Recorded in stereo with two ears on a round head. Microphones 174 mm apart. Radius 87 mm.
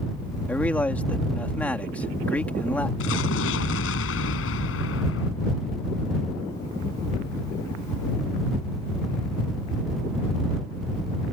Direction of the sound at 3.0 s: 75° left (ahead or behind).